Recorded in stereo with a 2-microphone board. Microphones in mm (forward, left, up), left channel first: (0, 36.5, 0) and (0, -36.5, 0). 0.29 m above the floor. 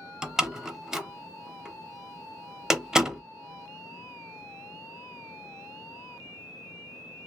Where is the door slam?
10° right (ahead or behind), 0.7 m.